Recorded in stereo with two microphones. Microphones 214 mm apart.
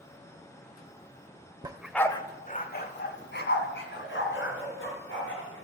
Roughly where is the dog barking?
Right.